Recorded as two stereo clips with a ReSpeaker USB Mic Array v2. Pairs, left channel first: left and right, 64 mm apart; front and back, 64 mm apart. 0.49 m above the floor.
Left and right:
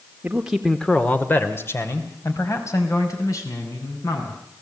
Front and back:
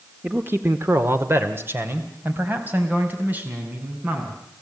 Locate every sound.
0.2 s a man speaking: 140° right, 1.4 m; by 4.4 s 120° left, 6.5 m